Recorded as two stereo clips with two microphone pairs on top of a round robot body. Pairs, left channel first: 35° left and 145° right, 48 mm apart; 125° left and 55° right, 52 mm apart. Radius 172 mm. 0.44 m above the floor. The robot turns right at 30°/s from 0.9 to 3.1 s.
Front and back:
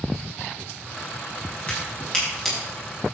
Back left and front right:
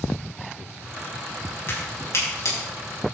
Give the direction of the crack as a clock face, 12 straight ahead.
9 o'clock.